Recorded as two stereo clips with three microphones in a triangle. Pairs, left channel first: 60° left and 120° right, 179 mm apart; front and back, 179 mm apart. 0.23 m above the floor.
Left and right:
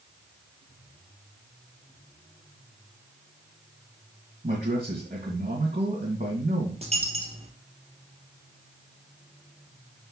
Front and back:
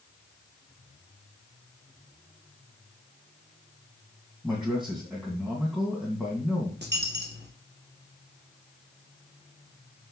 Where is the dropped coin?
170° right, 2 m.